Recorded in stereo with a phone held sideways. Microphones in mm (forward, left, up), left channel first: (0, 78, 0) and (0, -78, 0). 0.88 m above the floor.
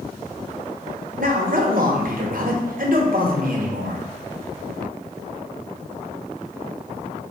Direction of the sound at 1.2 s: 65° right (ahead or behind).